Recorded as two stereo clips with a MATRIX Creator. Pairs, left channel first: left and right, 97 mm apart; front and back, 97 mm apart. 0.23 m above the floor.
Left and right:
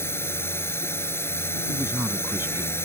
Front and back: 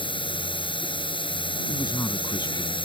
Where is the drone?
25° left.